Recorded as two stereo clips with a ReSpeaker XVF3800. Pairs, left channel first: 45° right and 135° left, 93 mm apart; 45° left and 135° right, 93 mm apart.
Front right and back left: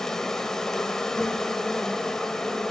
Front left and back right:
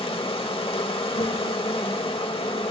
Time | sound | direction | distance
0.0 | an insect | 40° left | 0.9 m